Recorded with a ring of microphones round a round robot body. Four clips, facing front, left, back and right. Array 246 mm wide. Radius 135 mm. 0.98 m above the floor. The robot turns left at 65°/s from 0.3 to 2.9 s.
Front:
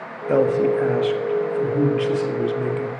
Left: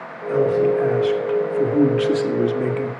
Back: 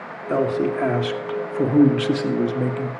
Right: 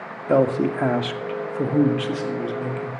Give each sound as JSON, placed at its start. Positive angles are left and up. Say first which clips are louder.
{"t": 0.3, "sound": "a man speaking", "louder": "left 2 dB, front 3 dB", "azimuth_deg": -65, "distance_m": 1.9}